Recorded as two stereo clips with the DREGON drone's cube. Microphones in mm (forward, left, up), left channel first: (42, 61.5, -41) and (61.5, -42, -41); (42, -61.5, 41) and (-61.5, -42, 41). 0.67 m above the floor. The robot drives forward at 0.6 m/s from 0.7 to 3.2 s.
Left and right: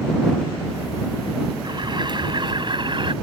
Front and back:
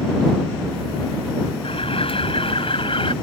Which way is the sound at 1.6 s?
35° right.